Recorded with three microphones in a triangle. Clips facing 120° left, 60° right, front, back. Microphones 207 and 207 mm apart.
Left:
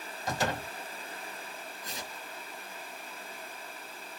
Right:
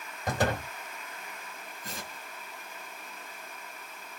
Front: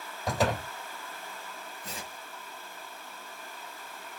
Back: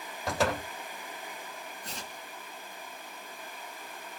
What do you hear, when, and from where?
0.3 s a door slam: 90° right, 2.5 m
1.8 s tearing paper: 85° right, 3 m